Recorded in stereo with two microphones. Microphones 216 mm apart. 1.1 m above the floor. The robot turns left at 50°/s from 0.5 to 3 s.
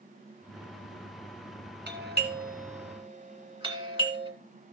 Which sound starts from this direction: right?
A doorbell, at 1.9 s.